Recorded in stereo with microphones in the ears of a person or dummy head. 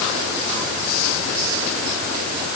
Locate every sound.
Only background noise.